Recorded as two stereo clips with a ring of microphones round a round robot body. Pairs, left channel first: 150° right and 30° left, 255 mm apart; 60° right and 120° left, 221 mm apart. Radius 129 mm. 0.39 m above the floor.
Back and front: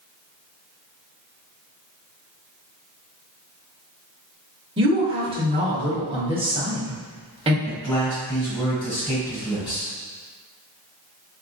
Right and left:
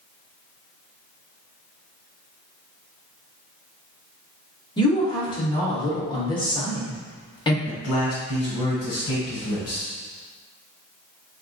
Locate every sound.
4.8 s a woman speaking: 15° right, 1.0 m
7.7 s a man speaking: 70° right, 1.7 m